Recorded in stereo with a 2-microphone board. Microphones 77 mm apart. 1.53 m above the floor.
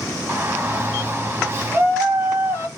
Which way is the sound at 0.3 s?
30° right (ahead or behind).